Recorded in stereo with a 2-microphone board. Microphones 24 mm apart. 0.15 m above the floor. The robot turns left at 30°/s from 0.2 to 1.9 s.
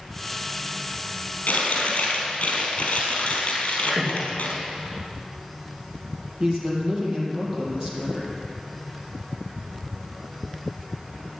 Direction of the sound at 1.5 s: 65° left (ahead or behind).